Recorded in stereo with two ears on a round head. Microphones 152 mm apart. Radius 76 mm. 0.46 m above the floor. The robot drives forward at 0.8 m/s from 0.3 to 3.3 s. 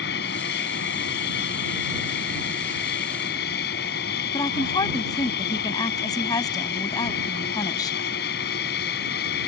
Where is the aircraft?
70° left (ahead or behind); by 9.5 s 65° left (ahead or behind).